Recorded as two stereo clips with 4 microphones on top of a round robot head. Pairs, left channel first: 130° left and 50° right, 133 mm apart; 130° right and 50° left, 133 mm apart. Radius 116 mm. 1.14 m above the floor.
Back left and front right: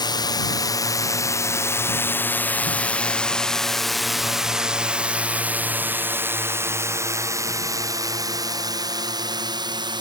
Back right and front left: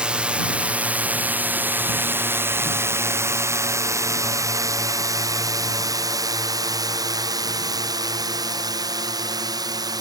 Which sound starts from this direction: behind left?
A drone, at 0.0 s.